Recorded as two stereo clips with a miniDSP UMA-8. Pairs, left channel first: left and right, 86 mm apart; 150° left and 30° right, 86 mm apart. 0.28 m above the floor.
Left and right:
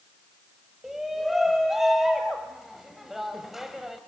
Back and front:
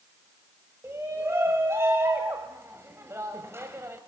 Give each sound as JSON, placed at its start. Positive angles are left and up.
{"t": 0.8, "sound": "a shout", "azimuth_deg": -5, "distance_m": 1.7}